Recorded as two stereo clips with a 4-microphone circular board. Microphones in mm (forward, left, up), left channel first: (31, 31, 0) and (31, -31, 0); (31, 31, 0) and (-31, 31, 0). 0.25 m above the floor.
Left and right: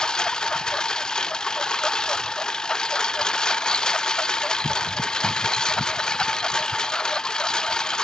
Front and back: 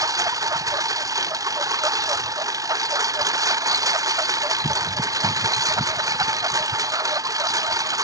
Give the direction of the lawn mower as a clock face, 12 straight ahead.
6 o'clock.